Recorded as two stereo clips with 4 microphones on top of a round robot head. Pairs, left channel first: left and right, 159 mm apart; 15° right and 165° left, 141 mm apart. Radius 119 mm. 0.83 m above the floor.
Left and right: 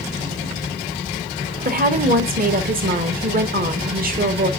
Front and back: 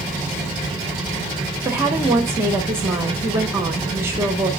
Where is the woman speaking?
120° right, 1.4 m.